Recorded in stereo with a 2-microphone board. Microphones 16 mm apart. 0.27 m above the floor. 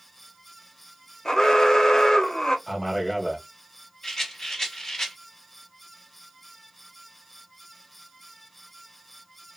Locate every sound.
1.2 s an alarm: 35° left (ahead or behind), 0.7 m
2.7 s a man speaking: 15° left (ahead or behind), 1.1 m
4.0 s a rattle: 30° left (ahead or behind), 1.8 m